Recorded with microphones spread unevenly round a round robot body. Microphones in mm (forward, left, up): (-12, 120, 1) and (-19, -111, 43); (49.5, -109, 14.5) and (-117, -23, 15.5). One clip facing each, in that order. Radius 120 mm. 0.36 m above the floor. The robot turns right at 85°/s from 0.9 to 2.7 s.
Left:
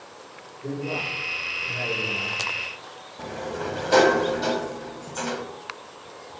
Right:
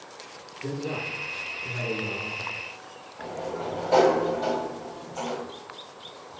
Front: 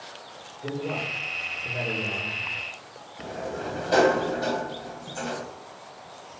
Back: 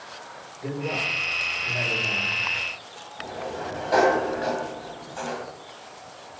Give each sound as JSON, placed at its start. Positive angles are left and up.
{"t": 0.6, "sound": "a man speaking", "azimuth_deg": -140, "distance_m": 7.5}
{"t": 3.2, "sound": "a sliding door", "azimuth_deg": 30, "distance_m": 1.7}